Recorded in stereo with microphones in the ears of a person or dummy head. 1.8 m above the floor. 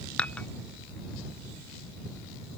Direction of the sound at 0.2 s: 5° left (ahead or behind).